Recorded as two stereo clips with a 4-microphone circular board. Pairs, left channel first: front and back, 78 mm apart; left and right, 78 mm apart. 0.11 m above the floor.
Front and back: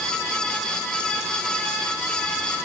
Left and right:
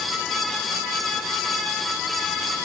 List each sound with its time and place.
Only background noise.